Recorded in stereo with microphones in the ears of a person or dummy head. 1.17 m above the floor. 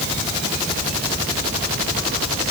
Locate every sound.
Only background noise.